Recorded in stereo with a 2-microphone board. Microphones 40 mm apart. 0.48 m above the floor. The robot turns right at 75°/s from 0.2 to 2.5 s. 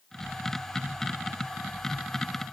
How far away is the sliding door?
No sliding door in this recording.